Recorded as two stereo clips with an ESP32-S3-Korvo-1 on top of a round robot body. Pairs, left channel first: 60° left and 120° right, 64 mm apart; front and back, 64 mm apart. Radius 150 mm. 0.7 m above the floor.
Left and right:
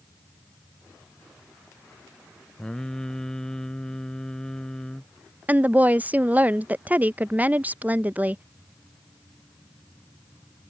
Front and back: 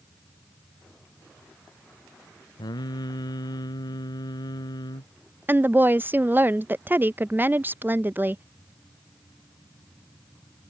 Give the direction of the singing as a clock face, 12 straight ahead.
1 o'clock.